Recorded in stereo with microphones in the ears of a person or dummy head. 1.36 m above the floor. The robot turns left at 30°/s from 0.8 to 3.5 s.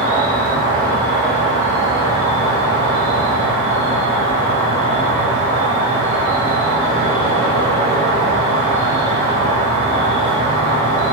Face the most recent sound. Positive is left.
turn(degrees=-70)